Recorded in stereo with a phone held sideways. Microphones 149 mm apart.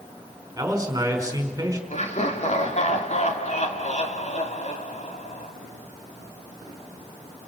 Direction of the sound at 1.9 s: 55° left (ahead or behind).